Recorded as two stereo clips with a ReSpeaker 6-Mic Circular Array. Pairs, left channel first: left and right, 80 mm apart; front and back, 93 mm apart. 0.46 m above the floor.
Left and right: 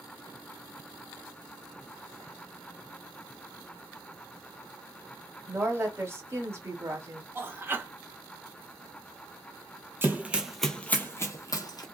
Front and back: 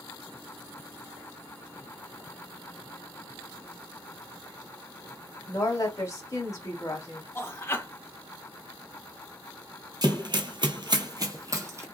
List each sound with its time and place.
5.5 s a woman speaking: 45° right, 1.2 m
7.3 s a man speaking: 45° right, 0.8 m
10.0 s running footsteps: 145° right, 0.7 m; by 11.8 s 120° left, 1.0 m